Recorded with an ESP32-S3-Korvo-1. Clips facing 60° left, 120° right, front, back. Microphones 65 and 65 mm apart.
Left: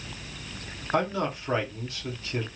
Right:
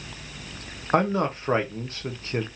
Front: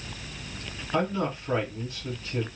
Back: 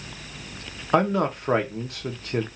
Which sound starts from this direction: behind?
A man speaking, at 0.9 s.